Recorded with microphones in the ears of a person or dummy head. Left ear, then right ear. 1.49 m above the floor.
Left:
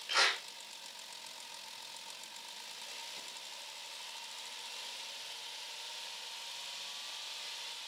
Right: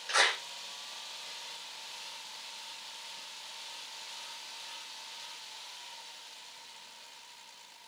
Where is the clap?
45° right (ahead or behind), 5 m.